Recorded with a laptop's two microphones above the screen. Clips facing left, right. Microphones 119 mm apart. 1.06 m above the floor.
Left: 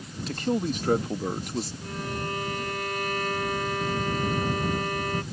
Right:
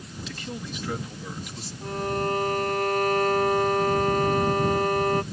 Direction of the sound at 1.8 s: 40° right (ahead or behind).